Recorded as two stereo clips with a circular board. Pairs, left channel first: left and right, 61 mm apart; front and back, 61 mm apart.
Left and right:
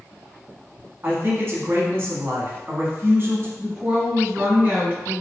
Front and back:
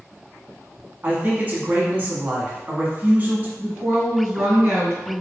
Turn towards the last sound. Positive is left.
turn(degrees=-145)